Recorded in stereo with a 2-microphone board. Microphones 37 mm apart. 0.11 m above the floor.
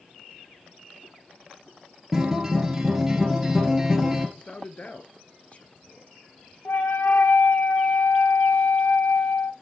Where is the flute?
75° left (ahead or behind), 1.5 m.